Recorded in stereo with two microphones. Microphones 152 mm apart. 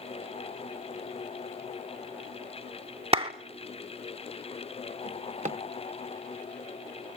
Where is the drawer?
60° right (ahead or behind), 0.7 m.